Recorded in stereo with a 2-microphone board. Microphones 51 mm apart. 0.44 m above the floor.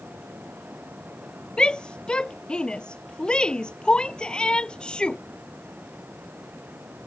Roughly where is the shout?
Centre.